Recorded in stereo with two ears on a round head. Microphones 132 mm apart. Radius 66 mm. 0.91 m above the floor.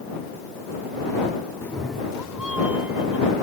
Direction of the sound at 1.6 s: 15° left (ahead or behind).